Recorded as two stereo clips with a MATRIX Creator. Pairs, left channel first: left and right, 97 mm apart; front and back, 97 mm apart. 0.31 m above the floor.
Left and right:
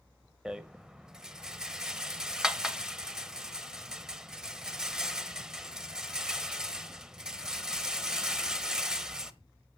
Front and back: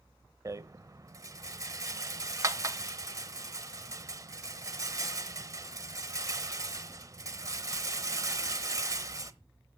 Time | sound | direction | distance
0.5 | a rattle | 165° right | 0.9 m